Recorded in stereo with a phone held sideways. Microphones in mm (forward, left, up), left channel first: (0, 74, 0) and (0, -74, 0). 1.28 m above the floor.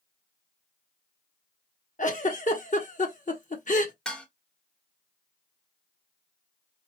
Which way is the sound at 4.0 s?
5° left (ahead or behind).